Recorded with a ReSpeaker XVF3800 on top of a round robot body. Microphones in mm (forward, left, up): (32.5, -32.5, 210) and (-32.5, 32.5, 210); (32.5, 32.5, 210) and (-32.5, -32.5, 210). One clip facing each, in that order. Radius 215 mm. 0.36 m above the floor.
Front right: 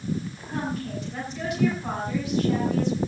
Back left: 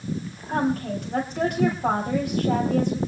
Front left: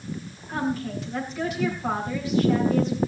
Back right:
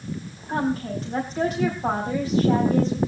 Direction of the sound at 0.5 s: 175° left.